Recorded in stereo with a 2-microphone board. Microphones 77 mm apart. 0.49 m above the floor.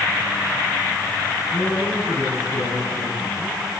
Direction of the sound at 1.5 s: 65° left (ahead or behind).